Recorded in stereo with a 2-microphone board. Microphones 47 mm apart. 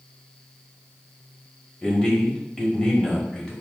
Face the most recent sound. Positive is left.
turn(degrees=15)  # may be behind; listen again after turning